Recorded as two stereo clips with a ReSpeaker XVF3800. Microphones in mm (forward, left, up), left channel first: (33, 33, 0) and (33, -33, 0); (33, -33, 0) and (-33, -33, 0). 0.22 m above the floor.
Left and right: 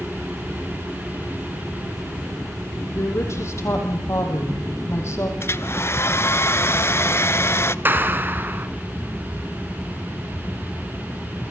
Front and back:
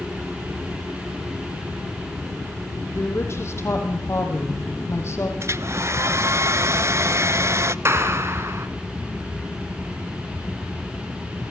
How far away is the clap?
About 2.5 m.